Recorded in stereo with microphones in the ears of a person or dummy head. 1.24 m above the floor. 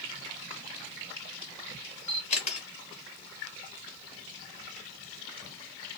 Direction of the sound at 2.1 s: 35° left (ahead or behind).